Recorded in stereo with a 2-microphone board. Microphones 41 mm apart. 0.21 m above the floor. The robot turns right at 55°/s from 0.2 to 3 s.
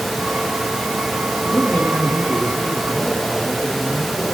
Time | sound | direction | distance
1.4 | a man speaking | 45° left | 5 m